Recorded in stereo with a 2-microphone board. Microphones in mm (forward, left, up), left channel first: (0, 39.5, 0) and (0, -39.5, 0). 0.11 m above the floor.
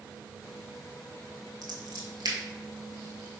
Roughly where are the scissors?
Right.